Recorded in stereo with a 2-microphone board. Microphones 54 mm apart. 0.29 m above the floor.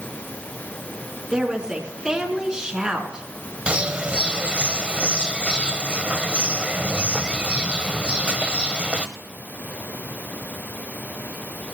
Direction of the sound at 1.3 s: 15° right (ahead or behind).